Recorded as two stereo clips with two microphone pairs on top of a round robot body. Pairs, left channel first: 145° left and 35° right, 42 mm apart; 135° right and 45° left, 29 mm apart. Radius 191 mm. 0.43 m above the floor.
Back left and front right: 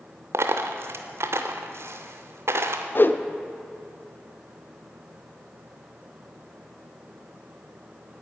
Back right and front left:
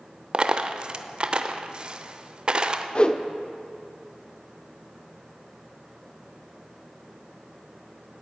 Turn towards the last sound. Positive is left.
turn(degrees=170)